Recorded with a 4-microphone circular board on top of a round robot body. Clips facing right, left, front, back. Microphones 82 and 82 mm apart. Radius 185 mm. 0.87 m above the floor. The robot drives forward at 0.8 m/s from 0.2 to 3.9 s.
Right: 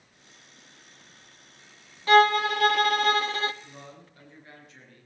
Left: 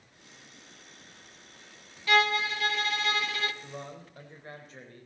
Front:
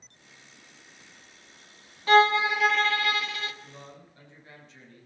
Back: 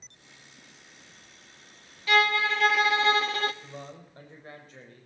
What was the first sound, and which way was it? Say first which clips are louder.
A violin: right 7 dB, front 4 dB; 45° right.